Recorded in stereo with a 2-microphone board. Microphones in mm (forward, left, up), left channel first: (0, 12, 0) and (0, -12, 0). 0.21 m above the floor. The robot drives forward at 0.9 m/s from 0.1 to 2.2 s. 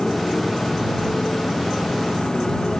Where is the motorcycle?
35° left (ahead or behind).